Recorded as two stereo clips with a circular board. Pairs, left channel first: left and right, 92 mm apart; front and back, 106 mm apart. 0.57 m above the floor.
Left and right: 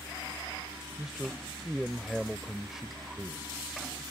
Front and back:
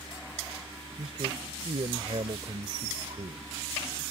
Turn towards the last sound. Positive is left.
turn(degrees=-175)